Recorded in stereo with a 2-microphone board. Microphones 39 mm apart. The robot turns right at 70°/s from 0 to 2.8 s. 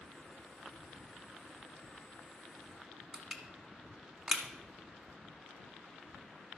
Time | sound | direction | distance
3.1 | crushing | 15° right (ahead or behind) | 1.2 m